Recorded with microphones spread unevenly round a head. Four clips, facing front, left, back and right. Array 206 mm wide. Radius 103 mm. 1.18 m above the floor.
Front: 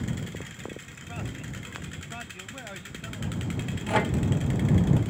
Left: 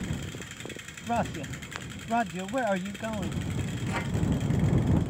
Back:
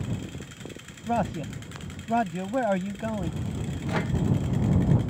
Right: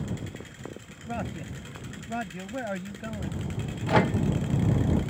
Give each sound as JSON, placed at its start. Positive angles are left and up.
{"t": 1.1, "sound": "a man speaking", "azimuth_deg": 165}
{"t": 3.9, "sound": "a microwave", "azimuth_deg": -65}